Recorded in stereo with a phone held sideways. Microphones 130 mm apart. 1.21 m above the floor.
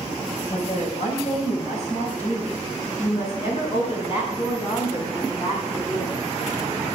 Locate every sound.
0.5 s a woman speaking: 70° left (ahead or behind), 6 m; by 6.3 s 40° left (ahead or behind), 8.5 m